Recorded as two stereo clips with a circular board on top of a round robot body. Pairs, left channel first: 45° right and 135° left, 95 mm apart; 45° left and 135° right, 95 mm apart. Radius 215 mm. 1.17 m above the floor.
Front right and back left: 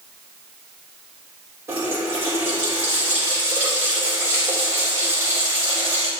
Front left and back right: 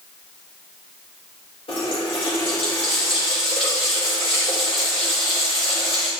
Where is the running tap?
70° left, 4 m.